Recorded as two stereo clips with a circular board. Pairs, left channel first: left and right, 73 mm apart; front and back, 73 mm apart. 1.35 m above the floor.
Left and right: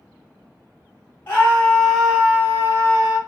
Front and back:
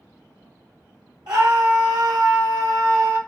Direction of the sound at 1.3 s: 150° left.